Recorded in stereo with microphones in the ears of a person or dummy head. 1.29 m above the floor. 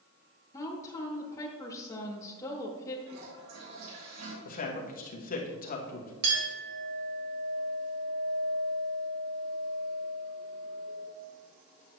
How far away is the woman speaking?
About 0.9 m.